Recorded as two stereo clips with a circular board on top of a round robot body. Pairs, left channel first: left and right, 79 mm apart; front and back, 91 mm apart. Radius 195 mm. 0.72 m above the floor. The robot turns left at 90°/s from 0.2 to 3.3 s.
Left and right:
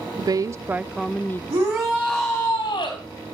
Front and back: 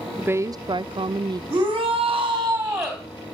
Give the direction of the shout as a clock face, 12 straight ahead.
4 o'clock.